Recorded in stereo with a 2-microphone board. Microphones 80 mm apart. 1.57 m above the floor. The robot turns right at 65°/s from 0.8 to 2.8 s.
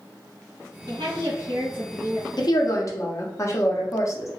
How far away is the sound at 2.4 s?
About 0.7 m.